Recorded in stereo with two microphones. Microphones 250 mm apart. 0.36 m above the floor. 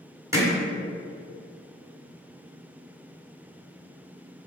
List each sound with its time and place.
0.3 s hammering: 15° right (ahead or behind), 2 m